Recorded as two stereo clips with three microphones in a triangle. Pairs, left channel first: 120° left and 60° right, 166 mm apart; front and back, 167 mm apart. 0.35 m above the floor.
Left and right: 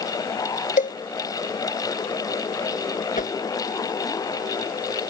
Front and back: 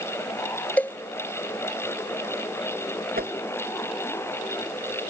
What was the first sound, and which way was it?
A cowbell, 80° left.